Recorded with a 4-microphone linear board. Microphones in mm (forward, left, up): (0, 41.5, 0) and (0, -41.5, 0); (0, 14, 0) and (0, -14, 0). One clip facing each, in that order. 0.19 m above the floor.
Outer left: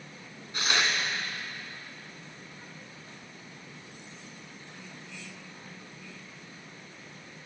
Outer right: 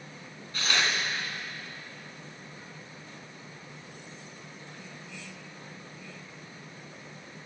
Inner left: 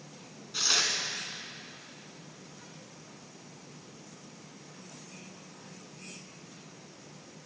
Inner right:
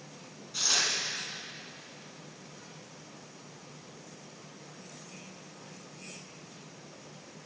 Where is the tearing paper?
20° left (ahead or behind), 1.4 m.